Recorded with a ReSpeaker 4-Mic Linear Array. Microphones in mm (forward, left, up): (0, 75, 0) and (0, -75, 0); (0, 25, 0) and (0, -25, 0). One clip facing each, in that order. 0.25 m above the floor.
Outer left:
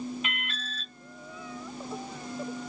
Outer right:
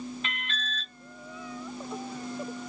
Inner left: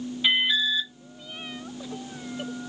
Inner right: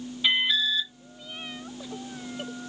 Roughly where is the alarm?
Centre.